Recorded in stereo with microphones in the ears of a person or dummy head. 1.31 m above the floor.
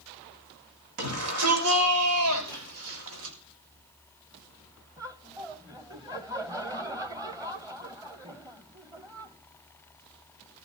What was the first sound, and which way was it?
A shout, 85° right.